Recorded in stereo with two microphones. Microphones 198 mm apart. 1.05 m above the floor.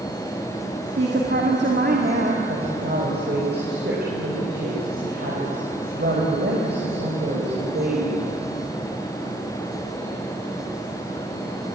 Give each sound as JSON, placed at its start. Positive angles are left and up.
{"t": 1.0, "sound": "a woman speaking", "side_deg": -65, "distance_m": 2.5}
{"t": 2.5, "sound": "a woman speaking", "side_deg": -60, "distance_m": 5.0}